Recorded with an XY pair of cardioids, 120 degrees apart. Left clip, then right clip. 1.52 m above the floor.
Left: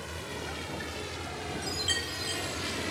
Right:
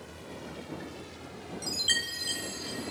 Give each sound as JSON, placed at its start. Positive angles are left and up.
{"t": 0.0, "sound": "a vehicle", "azimuth_deg": 55}
{"t": 1.6, "sound": "a chime", "azimuth_deg": -15}